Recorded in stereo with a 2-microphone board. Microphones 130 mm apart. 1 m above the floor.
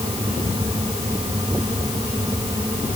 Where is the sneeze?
I don't hear a sneeze.